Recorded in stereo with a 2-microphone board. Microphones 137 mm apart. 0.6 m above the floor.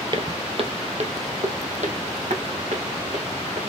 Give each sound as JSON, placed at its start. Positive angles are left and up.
{"t": 0.1, "sound": "footsteps", "side_deg": -35, "distance_m": 0.9}